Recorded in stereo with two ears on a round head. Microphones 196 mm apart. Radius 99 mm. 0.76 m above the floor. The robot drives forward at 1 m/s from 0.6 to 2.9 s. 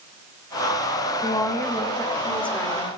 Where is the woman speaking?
15° left (ahead or behind), 0.9 m; by 2.9 s 5° left (ahead or behind), 2.5 m.